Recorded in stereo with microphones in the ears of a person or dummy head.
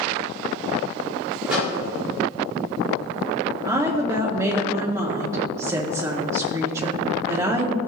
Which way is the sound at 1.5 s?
5° right (ahead or behind).